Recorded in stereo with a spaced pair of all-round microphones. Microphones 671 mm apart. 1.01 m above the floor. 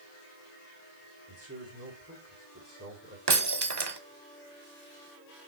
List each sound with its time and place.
1.3 s a man speaking: 20° right (ahead or behind), 3.5 m
3.3 s breaking glass: 35° right (ahead or behind), 0.9 m